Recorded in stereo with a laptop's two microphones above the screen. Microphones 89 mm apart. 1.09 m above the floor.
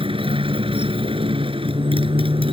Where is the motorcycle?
80° right.